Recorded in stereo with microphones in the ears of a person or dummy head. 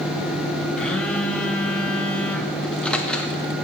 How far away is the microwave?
About 1.1 m.